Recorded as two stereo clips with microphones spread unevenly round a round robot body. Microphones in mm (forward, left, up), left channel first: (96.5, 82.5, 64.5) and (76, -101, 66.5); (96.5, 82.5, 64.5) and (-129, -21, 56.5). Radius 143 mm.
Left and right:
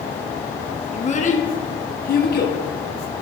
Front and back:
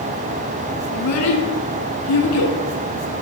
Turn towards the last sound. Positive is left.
turn(degrees=55)